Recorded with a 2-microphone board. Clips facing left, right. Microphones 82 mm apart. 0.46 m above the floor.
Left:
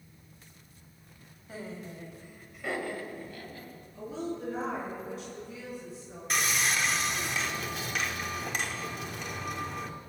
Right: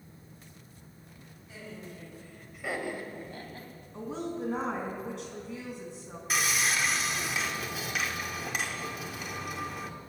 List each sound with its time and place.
1.5 s laughter: 45° left (ahead or behind), 2 m; by 3.7 s 40° right (ahead or behind), 3 m
3.9 s a woman speaking: 75° right (ahead or behind), 3.5 m
6.3 s sawing: 5° right (ahead or behind), 0.9 m